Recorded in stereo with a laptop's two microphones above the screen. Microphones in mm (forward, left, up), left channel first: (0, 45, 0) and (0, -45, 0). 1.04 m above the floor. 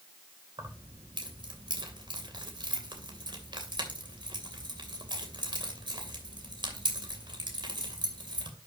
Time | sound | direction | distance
0.6 | keys jangling | 60° right (ahead or behind) | 2.5 m